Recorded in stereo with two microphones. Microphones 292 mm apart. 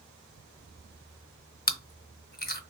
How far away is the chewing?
About 0.6 m.